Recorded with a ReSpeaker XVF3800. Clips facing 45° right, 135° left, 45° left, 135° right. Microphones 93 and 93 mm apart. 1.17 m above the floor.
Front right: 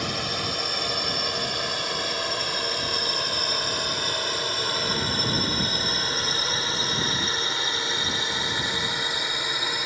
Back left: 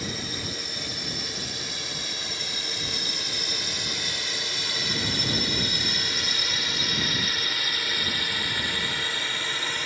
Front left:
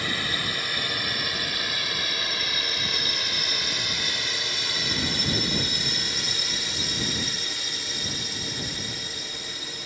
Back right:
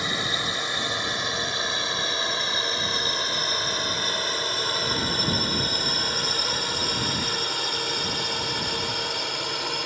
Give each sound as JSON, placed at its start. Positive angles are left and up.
{"t": 0.0, "sound": "a drone", "azimuth_deg": -65}